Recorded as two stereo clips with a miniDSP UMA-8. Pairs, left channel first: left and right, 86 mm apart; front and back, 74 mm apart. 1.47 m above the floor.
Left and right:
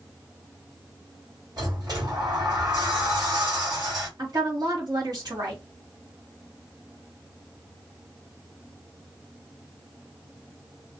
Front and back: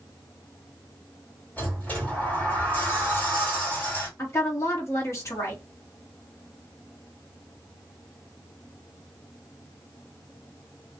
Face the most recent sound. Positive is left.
turn(degrees=-50)